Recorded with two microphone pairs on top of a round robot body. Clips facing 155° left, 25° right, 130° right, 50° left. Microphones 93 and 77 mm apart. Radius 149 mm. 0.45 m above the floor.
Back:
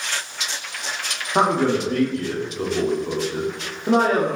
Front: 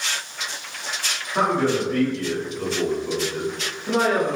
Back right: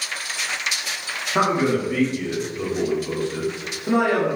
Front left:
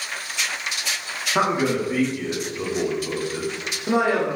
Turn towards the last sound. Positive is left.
turn(degrees=130)